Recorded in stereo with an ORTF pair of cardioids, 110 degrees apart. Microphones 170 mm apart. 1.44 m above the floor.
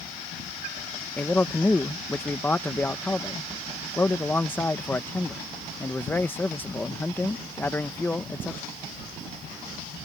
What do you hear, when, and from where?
1.2 s a man speaking: 10° left